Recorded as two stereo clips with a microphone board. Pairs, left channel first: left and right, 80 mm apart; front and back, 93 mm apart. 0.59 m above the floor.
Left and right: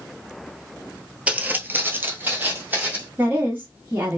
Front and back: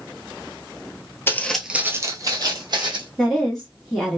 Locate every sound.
1.3 s footsteps: 30° right, 0.6 m; by 3.1 s 155° right, 1.5 m
3.2 s a woman speaking: 80° right, 1.0 m